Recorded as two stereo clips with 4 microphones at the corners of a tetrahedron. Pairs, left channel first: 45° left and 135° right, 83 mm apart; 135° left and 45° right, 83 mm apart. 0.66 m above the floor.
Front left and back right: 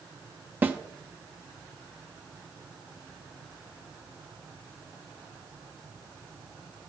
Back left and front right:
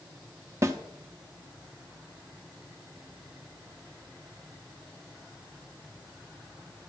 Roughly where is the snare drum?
Right.